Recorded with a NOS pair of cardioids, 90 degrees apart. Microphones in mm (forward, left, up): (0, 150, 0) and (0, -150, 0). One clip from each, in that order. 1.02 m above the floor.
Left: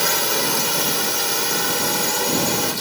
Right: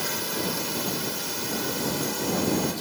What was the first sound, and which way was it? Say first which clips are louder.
A drone: left 9 dB; 65° left.